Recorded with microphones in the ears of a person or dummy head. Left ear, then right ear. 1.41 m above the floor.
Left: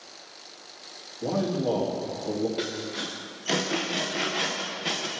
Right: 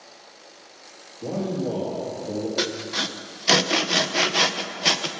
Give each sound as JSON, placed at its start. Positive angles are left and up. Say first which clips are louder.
{"t": 1.2, "sound": "a man speaking", "louder": "left 1 dB", "side_deg": 65, "distance_m": 2.5}
{"t": 2.6, "sound": "sawing", "louder": "right 6 dB", "side_deg": -35, "distance_m": 0.7}